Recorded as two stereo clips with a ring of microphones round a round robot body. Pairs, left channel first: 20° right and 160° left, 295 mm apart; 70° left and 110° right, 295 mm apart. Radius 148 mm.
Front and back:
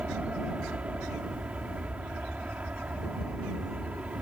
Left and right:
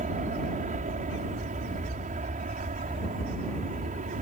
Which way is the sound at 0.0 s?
120° right.